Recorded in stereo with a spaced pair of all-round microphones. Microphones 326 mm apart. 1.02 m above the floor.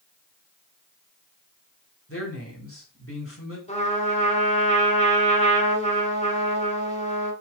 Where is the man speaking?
40° left (ahead or behind), 3.5 m.